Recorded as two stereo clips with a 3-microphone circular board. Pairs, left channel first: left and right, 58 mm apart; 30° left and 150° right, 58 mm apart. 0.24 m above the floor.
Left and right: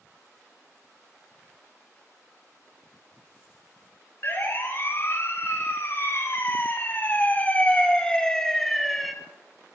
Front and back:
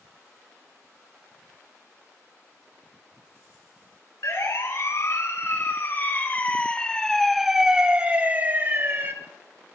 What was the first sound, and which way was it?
A siren, 45° left.